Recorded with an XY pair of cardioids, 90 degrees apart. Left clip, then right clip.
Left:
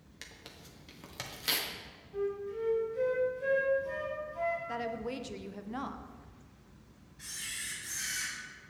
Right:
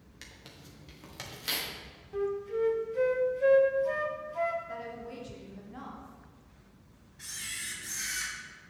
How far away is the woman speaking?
About 0.8 m.